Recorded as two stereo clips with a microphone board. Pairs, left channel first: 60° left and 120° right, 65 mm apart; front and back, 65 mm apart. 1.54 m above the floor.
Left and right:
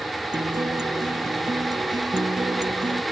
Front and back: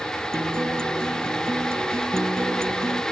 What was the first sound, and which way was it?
A guitar, 130° right.